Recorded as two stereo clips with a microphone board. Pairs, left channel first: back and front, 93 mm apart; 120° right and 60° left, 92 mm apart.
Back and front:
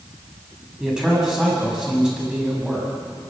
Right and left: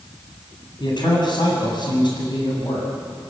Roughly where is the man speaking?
Right.